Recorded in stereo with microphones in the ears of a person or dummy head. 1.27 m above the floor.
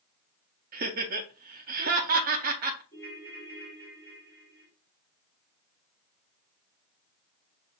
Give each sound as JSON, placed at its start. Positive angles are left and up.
{"t": 0.7, "sound": "laughter", "side_deg": -45, "distance_m": 0.6}
{"t": 2.9, "sound": "a ringtone", "side_deg": 25, "distance_m": 2.0}